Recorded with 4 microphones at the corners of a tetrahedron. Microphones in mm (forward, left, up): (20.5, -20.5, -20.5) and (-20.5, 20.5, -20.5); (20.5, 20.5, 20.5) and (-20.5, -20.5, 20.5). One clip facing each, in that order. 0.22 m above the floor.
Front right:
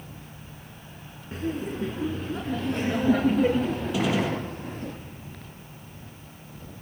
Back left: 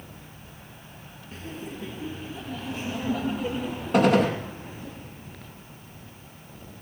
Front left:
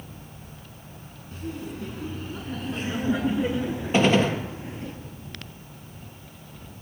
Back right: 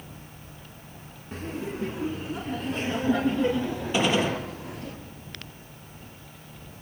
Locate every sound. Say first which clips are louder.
1.3 s laughter: front right 8 dB, back right 2 dB; 85° right, 2.5 m; by 4.9 s 20° right, 4.5 m
3.9 s a gunshot: back left 7 dB, front left 4 dB; 95° left, 4.5 m